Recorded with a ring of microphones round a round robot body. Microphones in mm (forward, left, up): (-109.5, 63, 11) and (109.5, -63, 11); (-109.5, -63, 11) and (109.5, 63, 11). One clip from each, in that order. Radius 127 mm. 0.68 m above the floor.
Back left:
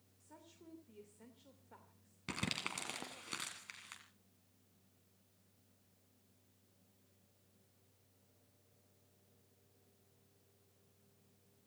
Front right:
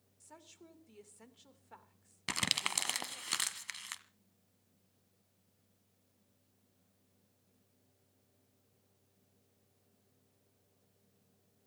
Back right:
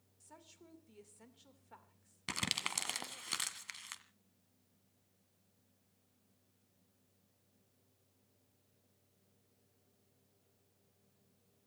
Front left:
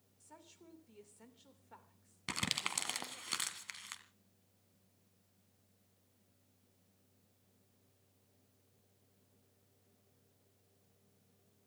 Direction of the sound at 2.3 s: 65° right.